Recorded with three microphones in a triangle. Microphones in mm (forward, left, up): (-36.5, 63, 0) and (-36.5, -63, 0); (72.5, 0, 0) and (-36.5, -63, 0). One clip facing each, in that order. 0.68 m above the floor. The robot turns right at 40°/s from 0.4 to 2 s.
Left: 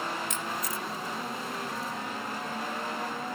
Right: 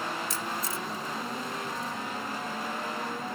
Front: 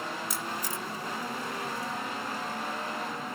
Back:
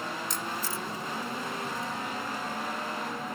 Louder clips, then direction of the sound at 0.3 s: Even, back 1 dB; 50° right.